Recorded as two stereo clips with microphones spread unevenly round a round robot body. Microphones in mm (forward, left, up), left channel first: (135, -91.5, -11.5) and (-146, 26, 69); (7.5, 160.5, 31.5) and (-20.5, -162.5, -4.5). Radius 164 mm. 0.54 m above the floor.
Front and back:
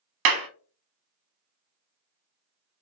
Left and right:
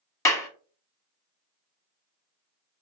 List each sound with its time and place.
0.2 s a clap: 170° left, 0.7 m